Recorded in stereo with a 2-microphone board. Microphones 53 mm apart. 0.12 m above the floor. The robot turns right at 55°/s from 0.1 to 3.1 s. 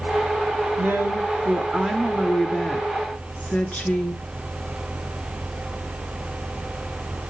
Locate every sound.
0.8 s a woman speaking: 80° right, 1.5 m; by 4.2 s 50° left, 1.5 m